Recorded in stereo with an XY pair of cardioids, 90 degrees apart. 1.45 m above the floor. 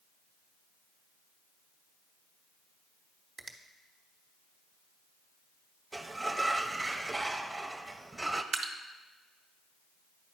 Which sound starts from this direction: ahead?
A sliding door, at 5.9 s.